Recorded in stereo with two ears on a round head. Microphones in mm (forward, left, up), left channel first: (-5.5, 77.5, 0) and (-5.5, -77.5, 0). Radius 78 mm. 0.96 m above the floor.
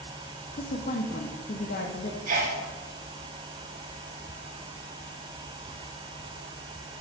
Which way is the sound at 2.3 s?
45° right (ahead or behind).